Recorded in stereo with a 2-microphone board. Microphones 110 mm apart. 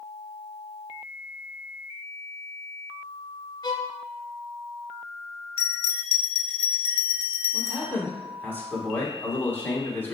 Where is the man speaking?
15° left (ahead or behind), 1.2 m.